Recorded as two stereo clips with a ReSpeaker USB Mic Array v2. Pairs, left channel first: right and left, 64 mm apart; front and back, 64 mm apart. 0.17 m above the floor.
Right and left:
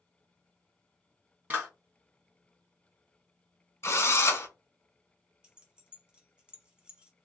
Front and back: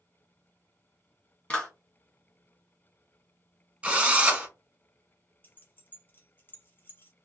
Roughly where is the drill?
Behind right.